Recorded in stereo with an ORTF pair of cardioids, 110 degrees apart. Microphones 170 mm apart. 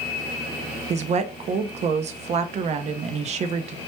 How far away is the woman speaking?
About 0.5 m.